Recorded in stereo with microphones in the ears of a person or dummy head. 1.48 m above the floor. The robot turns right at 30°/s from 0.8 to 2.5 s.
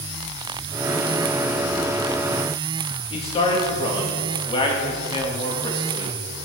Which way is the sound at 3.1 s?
30° left (ahead or behind).